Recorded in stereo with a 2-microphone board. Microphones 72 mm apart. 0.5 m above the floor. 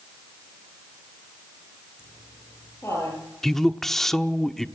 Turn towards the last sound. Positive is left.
turn(degrees=5)  # may be behind; listen again after turning